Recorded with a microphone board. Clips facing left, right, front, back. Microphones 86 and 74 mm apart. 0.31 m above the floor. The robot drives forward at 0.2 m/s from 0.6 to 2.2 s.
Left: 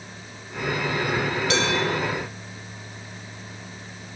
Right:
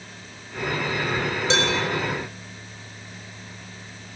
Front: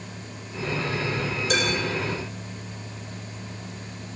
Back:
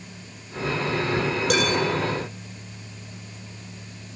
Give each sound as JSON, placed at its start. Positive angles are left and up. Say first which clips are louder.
{"t": 1.5, "sound": "dishes clattering", "louder": "right 2 dB, back 2 dB", "azimuth_deg": -155, "distance_m": 5.0}